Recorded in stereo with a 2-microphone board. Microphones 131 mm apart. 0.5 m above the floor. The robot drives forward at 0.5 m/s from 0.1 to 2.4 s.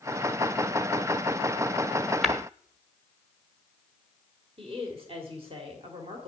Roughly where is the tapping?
Centre.